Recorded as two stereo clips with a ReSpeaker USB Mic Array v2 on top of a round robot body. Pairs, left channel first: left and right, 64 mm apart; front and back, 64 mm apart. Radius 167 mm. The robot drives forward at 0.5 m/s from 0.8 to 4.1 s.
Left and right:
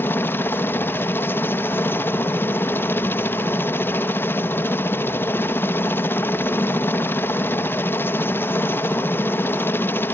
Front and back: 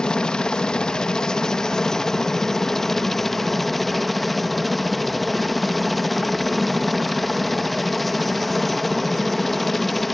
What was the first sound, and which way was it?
A helicopter, 70° left.